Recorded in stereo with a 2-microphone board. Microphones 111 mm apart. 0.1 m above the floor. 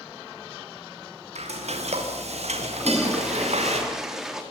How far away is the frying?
About 7.5 m.